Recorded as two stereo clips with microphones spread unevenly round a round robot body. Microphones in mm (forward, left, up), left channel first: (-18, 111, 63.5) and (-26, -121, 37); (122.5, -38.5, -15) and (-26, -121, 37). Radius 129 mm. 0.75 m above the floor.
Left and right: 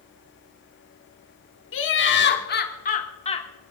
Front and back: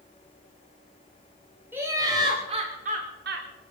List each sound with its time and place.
1.7 s laughter: 120° left, 2.5 m; by 3.5 s 155° left, 2 m